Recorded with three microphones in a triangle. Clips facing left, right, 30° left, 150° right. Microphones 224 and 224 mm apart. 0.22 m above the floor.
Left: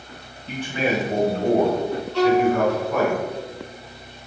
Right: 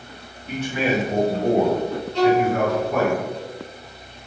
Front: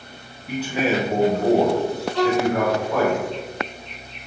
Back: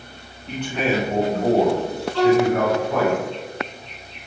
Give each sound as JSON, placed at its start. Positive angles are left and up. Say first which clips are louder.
{"t": 0.5, "sound": "a man speaking", "louder": "right 1 dB, front 1 dB", "azimuth_deg": 105, "distance_m": 1.3}
{"t": 2.1, "sound": "a violin", "louder": "even, back 4 dB", "azimuth_deg": 100, "distance_m": 1.0}